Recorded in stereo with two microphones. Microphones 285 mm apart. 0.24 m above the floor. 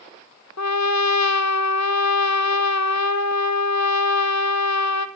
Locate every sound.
0.6 s a trumpet: 70° left (ahead or behind), 1.2 m